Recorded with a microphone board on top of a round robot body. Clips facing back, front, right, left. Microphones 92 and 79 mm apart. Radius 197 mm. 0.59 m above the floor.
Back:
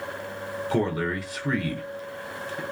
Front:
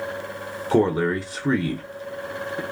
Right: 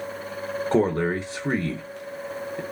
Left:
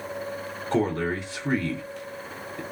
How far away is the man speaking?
About 0.8 m.